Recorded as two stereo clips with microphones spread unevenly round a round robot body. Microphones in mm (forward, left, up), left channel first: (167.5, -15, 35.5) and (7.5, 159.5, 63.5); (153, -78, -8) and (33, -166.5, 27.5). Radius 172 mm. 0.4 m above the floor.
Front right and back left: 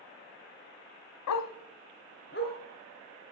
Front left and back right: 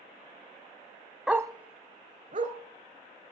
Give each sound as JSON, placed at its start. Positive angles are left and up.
{"t": 1.3, "sound": "a dog barking", "azimuth_deg": -60, "distance_m": 0.6}